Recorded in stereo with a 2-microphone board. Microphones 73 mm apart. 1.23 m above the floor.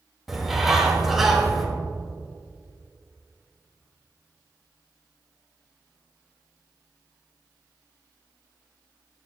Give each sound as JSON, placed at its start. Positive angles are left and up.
{"t": 0.3, "sound": "a bird", "side_deg": -5, "distance_m": 1.8}